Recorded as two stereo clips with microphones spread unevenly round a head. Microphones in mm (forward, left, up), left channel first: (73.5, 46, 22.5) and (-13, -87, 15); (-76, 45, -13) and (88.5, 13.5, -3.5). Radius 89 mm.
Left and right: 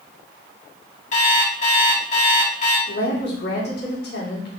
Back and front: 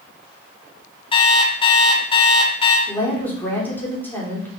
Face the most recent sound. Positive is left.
turn(degrees=90)